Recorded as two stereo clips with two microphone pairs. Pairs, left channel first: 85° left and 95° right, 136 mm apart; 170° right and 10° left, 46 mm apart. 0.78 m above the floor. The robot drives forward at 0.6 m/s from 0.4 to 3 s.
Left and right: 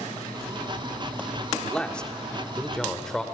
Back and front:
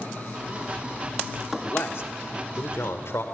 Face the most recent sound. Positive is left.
turn(degrees=170)